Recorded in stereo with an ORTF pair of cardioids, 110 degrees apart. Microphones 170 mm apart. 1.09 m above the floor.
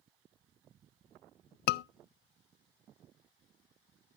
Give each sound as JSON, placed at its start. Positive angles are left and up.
{"t": 1.7, "sound": "a scream", "azimuth_deg": 70, "distance_m": 0.5}